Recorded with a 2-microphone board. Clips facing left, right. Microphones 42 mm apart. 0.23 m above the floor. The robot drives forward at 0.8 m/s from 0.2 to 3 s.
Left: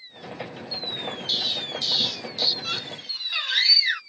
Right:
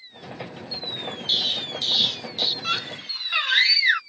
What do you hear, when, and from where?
1.3 s an explosion: 30° right (ahead or behind); by 2.5 s 40° right (ahead or behind)
2.6 s a scream: 30° right (ahead or behind); by 4.0 s 25° right (ahead or behind)